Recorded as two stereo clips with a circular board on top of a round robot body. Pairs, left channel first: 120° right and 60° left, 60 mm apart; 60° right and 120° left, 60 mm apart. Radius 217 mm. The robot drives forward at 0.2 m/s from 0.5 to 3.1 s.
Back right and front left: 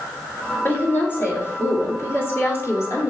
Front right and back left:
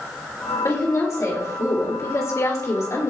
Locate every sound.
0.6 s a woman speaking: 75° right, 2.5 m; by 3.1 s 90° right, 2 m